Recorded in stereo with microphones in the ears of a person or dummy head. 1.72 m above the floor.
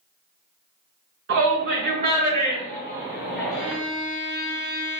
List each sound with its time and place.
1.3 s a shout: 65° right (ahead or behind), 1.3 m; by 3.7 s centre (ahead or behind), 1.6 m
3.5 s a violin: 70° left (ahead or behind), 0.6 m